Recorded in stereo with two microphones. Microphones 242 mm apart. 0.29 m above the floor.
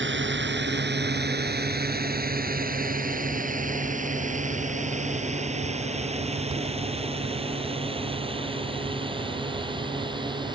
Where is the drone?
50° right (ahead or behind); by 10.5 s 20° right (ahead or behind).